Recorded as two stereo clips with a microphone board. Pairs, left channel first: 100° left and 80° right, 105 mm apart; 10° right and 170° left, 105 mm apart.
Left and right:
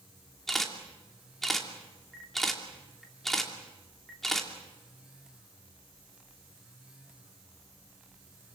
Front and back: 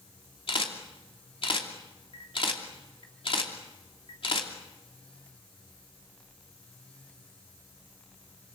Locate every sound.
0.5 s a camera shutter: 15° left, 2.5 m